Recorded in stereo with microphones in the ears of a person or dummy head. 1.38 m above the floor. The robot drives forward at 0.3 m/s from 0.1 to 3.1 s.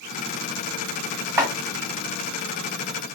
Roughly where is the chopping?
Centre.